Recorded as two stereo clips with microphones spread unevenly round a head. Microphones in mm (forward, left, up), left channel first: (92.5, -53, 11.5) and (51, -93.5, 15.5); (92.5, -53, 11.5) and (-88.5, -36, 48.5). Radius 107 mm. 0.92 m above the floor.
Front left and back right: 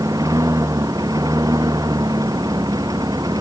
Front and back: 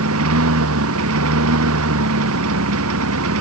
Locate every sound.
0.0 s a lawn mower: 150° left; by 3.4 s 155° left